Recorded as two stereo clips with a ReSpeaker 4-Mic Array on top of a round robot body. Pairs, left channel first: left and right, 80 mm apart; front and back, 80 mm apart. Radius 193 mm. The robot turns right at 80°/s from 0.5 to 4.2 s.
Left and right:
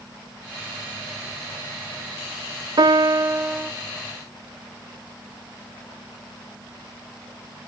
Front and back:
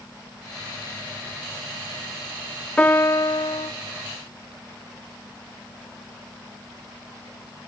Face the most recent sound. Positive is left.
turn(degrees=35)